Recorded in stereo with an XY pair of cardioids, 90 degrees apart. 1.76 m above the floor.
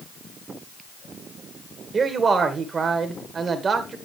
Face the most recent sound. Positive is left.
turn(degrees=-45)